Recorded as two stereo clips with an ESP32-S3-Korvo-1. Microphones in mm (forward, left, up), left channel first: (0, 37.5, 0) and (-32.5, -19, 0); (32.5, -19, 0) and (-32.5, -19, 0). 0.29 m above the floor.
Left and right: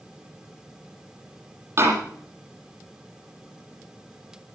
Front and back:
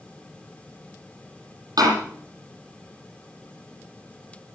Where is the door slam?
165° right, 8.5 m.